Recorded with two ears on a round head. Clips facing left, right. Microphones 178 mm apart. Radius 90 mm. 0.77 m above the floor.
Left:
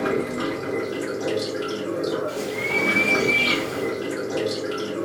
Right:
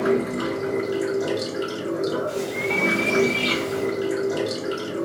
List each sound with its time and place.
0.0 s running water: 15° right (ahead or behind), 1.3 m
2.3 s a bird: 45° right (ahead or behind), 1.5 m